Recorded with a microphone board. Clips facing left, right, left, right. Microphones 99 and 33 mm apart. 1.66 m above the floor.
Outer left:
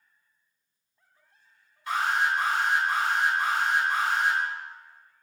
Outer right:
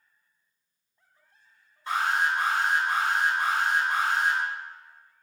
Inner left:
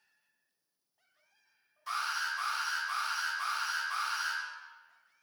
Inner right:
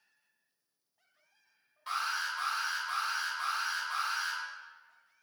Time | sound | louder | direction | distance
1.9 | an alarm | even, even | 35° right (ahead or behind) | 1.7 m